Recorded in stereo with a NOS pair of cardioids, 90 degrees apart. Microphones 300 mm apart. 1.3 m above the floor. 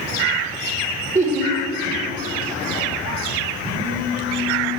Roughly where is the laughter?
Ahead right.